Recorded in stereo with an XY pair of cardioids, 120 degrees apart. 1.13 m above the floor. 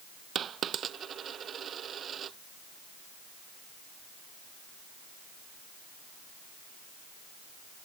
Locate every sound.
0.3 s a dropped coin: 45° right